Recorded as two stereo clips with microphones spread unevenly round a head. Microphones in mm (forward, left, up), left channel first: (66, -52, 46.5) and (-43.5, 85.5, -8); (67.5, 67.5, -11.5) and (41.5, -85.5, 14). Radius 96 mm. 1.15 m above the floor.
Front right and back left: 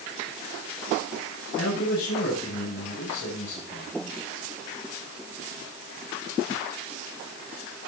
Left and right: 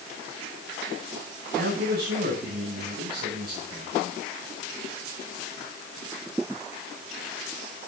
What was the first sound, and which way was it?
A man speaking, 90° right.